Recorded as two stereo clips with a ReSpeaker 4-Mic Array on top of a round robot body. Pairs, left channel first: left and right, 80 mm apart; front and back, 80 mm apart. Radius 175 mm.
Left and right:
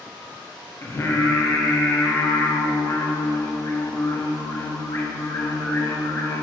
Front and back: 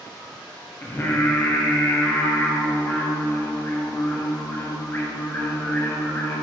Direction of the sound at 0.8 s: 50° left.